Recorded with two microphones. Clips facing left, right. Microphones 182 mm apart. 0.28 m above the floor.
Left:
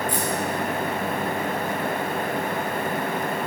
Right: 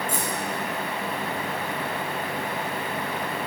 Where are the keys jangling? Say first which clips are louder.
Left 4 dB; 45° right (ahead or behind), 2.5 m.